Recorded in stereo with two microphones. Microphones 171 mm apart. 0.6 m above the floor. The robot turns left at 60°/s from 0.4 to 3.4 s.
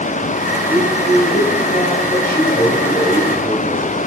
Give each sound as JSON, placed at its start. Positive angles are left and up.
{"t": 0.7, "sound": "a man speaking", "azimuth_deg": 155, "distance_m": 3.0}